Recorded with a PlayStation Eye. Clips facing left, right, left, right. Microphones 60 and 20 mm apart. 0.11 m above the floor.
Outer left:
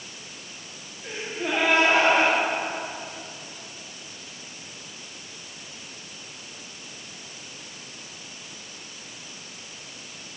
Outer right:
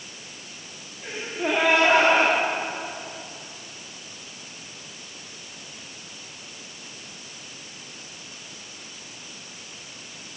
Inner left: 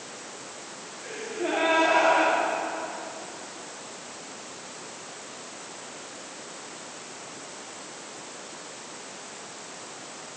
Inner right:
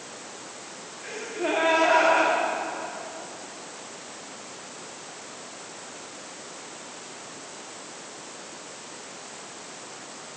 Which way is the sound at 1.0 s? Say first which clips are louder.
Outer right 3 dB, inner right 2 dB; 80° right.